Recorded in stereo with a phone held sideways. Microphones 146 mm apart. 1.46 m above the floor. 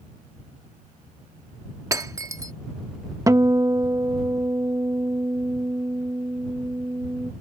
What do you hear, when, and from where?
1.9 s breaking glass: 25° right (ahead or behind)
3.3 s a guitar: 20° right (ahead or behind)